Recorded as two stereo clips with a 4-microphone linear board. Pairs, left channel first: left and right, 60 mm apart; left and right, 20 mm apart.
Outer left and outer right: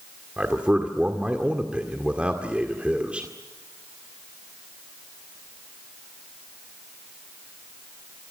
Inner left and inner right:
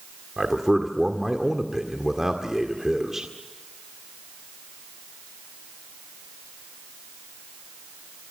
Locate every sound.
0.4 s a man speaking: 20° right (ahead or behind), 1.9 m